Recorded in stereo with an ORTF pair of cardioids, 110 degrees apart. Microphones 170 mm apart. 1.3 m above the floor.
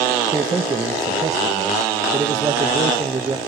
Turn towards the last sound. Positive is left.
turn(degrees=-20)